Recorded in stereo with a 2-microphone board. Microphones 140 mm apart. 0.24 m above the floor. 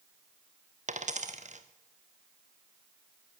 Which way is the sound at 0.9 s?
55° right (ahead or behind).